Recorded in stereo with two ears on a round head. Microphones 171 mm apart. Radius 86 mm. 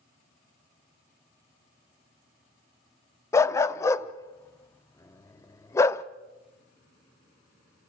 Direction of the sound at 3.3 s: 15° left (ahead or behind).